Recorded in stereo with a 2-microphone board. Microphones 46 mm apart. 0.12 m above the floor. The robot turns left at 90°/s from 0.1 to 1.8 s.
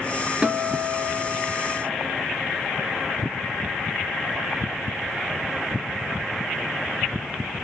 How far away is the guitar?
About 0.8 m.